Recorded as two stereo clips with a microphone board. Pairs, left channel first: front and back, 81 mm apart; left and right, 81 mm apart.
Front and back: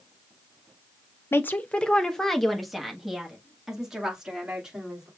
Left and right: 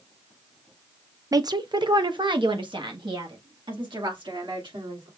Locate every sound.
1.3 s a woman speaking: 55° right, 0.5 m; by 5.1 s 100° right, 2.5 m